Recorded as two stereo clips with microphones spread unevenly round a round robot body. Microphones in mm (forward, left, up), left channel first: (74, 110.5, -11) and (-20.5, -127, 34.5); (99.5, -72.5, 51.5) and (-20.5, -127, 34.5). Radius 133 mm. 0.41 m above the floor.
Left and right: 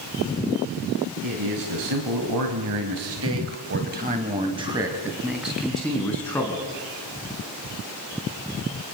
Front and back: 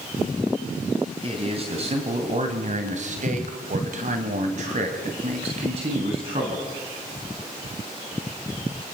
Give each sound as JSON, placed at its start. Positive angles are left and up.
{"t": 1.2, "sound": "a man speaking", "azimuth_deg": -115, "distance_m": 3.0}